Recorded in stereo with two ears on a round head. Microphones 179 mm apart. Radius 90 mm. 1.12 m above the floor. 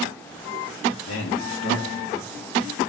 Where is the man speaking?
70° left (ahead or behind), 2 m; by 2.9 s 25° left (ahead or behind), 0.6 m.